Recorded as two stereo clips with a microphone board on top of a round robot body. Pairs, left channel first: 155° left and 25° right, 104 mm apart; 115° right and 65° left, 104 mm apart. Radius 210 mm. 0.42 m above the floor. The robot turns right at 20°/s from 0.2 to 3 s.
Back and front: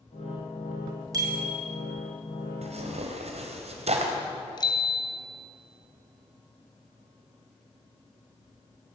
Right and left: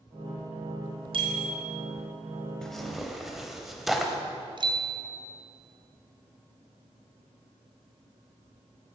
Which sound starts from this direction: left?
A bicycle bell, at 4.6 s.